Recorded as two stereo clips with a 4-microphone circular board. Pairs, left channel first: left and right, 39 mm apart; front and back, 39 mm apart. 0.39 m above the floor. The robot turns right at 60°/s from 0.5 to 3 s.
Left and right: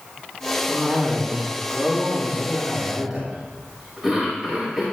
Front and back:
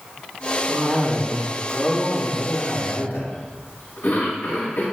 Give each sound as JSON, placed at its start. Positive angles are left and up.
{"t": 0.7, "sound": "a cough", "azimuth_deg": -150, "distance_m": 4.0}